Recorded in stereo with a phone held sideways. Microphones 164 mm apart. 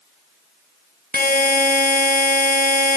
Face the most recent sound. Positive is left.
turn(degrees=55)  # may be behind; listen again after turning